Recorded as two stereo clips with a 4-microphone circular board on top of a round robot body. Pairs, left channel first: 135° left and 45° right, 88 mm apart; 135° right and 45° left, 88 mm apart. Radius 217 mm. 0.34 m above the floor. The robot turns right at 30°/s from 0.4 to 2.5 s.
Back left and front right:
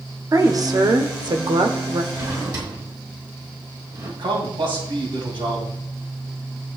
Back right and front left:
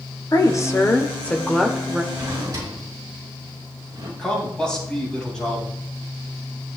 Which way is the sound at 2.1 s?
15° right.